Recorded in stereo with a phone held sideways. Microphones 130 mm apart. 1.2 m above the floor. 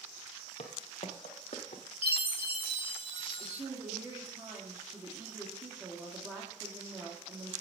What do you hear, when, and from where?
0.6 s footsteps: 55° left (ahead or behind), 2 m; by 1.8 s 60° left (ahead or behind), 2.5 m
2.0 s a chime: 45° left (ahead or behind), 1.2 m
3.4 s a woman speaking: 15° right (ahead or behind), 2 m